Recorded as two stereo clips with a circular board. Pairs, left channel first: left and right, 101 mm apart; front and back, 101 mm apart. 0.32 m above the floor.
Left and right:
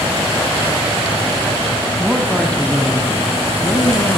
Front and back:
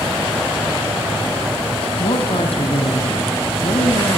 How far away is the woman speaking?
About 2.5 m.